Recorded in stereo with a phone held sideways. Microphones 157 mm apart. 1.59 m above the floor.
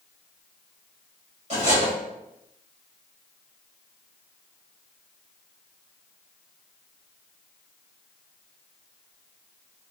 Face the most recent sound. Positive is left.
turn(degrees=-50)  # may be behind; listen again after turning